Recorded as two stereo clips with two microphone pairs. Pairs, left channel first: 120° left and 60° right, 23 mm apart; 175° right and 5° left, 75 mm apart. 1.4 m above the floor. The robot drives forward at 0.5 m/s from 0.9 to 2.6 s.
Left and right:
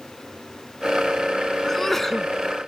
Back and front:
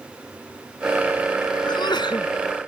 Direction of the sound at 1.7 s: 165° right.